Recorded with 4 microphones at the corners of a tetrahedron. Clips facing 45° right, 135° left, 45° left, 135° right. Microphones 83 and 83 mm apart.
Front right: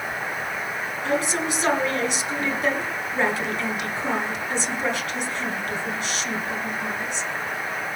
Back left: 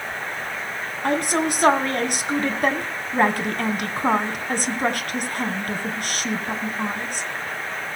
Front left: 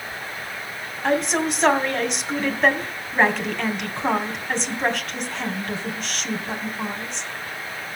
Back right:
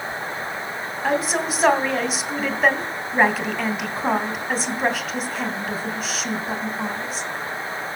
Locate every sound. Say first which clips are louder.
1.0 s a woman speaking: back left 3 dB, front left 1 dB; 140° left, 2.5 m